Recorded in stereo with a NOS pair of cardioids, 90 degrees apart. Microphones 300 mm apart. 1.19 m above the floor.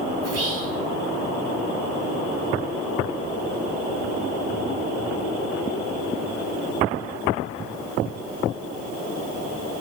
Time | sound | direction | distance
0.2 | whispering | 50° right | 4.5 m